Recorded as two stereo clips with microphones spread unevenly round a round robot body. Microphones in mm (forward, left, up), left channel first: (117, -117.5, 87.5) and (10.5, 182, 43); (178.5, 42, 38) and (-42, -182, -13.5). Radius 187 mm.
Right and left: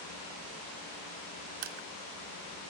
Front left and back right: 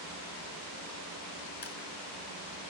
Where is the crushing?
110° left, 0.9 m.